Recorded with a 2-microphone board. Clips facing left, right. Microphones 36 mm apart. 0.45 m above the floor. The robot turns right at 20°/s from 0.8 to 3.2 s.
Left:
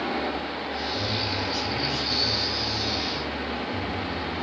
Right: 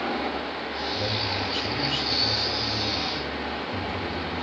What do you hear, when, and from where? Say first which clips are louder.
0.9 s a man speaking: right 1 dB; 140° right, 4 m; by 4.4 s 95° right, 4 m